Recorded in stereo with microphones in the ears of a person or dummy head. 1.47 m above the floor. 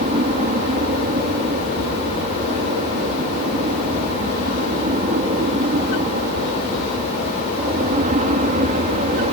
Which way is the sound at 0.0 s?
35° right (ahead or behind).